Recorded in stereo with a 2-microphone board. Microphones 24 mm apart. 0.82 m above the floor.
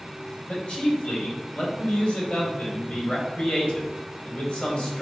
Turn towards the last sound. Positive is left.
turn(degrees=50)  # may be behind; listen again after turning